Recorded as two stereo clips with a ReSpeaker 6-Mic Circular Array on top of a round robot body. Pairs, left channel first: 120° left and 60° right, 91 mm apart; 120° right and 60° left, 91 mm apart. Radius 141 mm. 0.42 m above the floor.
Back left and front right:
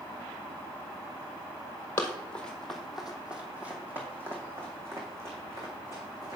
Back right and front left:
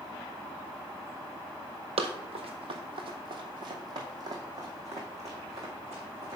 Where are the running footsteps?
50° left, 1.1 m; by 6.4 s straight ahead, 3 m.